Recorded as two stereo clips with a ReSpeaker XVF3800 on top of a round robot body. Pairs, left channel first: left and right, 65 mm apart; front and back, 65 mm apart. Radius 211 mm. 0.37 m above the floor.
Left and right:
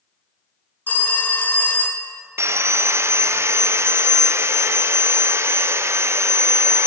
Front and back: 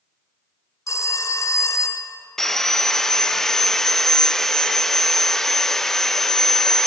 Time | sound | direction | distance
0.9 | a phone ringing | 30° left | 0.7 m
2.4 | sawing | 80° right | 0.6 m